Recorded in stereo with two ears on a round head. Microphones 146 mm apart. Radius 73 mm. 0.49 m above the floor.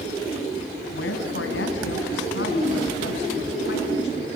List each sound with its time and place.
0.9 s a woman speaking: 75° left (ahead or behind), 3.5 m